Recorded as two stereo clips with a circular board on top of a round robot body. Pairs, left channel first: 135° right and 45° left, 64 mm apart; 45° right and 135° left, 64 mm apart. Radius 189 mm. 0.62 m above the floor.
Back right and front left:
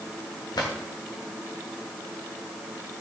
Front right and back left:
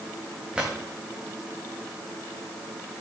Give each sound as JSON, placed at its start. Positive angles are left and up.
{"t": 0.6, "sound": "a drawer", "azimuth_deg": -150, "distance_m": 2.5}